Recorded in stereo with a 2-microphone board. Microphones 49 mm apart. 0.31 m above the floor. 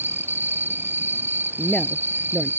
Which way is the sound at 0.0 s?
45° right (ahead or behind).